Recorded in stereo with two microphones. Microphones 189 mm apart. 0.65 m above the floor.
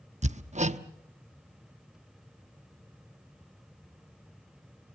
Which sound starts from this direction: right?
Hammering, at 0.2 s.